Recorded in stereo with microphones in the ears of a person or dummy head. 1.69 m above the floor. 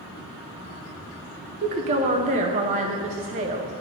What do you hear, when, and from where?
1.6 s a woman speaking: 40° right (ahead or behind), 0.7 m